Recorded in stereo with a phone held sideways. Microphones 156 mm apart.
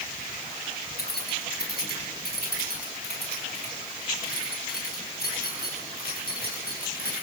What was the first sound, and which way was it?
Keys jangling, 90° left.